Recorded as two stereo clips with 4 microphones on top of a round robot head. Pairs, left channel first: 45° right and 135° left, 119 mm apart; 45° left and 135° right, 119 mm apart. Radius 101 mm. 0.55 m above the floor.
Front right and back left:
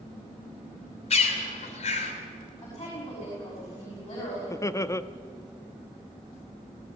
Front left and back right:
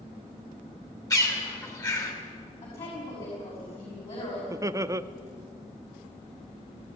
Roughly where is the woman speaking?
Ahead.